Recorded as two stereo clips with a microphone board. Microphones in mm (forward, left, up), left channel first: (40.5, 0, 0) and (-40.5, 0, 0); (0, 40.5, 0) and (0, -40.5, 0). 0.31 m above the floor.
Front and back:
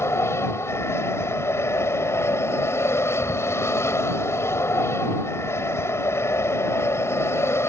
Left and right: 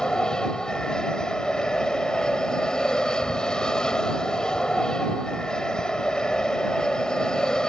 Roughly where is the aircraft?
Ahead.